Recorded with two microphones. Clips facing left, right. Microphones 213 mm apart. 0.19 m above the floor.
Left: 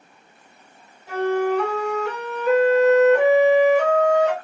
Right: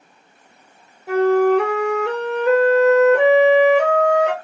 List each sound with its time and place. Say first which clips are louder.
1.1 s a flute: right 6 dB; 75° right (ahead or behind), 1.3 m